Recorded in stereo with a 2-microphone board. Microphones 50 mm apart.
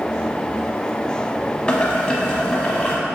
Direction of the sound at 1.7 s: 20° left (ahead or behind).